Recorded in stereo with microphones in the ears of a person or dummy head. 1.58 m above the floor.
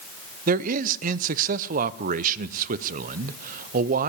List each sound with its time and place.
0.5 s a man speaking: 40° right (ahead or behind), 0.6 m